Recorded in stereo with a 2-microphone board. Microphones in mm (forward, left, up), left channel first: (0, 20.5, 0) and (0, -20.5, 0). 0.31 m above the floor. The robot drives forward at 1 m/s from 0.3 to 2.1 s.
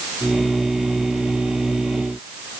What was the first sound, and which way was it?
Only background noise.